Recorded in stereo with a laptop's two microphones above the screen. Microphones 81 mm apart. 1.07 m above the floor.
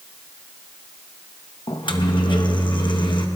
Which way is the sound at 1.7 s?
80° left.